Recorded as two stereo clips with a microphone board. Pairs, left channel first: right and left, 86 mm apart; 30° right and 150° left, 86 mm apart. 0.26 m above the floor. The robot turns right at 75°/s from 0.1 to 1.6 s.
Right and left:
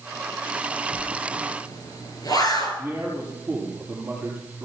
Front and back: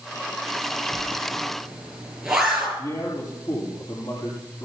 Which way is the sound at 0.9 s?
175° right.